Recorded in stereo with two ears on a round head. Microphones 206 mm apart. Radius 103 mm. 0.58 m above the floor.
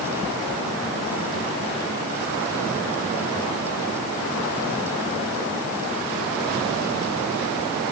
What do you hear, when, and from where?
Only background noise.